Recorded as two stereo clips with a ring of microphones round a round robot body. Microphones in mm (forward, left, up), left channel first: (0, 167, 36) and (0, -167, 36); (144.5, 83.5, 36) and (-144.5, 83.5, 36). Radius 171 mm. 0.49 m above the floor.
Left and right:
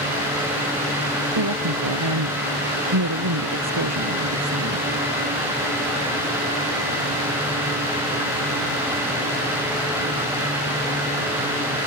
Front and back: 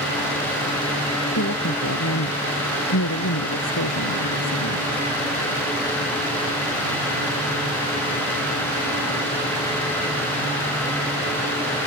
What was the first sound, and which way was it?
A woman speaking, 55° right.